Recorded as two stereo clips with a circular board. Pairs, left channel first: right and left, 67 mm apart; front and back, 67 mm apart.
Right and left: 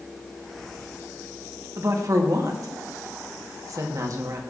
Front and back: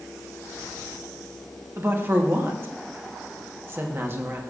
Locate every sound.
1.8 s a woman speaking: 125° left, 1.2 m